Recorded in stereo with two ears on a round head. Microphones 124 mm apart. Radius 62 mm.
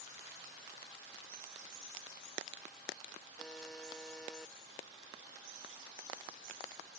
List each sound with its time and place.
3.4 s a buzzer: 5° left (ahead or behind)